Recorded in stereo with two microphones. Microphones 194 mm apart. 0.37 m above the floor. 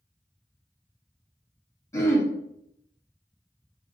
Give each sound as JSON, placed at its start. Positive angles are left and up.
{"t": 1.9, "sound": "throat clearing", "side_deg": 15, "distance_m": 1.0}